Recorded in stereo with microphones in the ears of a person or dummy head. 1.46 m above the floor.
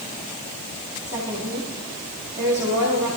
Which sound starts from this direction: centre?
A woman speaking, at 1.1 s.